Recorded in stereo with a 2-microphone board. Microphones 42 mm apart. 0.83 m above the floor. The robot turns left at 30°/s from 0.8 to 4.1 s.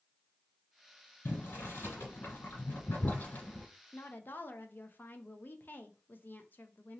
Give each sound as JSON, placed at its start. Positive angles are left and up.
{"t": 1.2, "sound": "boiling", "side_deg": 60, "distance_m": 1.7}
{"t": 3.9, "sound": "a woman speaking", "side_deg": 55, "distance_m": 0.6}